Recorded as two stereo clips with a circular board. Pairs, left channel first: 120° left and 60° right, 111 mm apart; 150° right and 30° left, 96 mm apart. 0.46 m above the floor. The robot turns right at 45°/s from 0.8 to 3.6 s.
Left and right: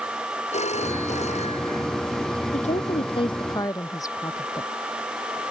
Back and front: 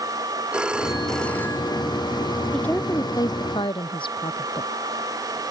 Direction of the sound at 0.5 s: 110° left.